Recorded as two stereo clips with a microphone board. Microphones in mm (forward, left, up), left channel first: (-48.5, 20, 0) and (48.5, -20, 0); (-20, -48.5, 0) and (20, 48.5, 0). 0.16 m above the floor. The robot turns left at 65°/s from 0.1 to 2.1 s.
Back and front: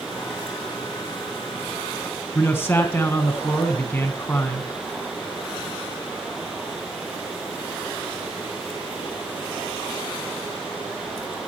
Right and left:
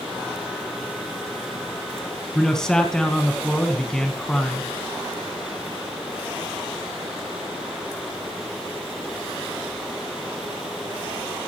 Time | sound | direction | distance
2.4 | a man speaking | 175° left | 1.4 m